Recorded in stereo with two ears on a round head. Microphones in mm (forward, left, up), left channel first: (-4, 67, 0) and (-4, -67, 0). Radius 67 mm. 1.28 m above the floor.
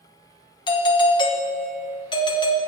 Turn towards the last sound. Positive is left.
turn(degrees=30)  # may be behind; listen again after turning